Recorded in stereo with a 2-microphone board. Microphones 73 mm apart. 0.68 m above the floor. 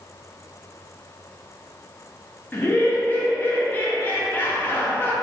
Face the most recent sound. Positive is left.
turn(degrees=25)  # may be behind; listen again after turning